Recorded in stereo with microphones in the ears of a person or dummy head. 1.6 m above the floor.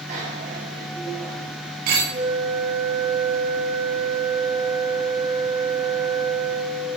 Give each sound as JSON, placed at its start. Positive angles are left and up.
{"t": 0.1, "sound": "a bicycle bell", "side_deg": -50, "distance_m": 6.0}
{"t": 2.1, "sound": "a flute", "side_deg": -50, "distance_m": 9.0}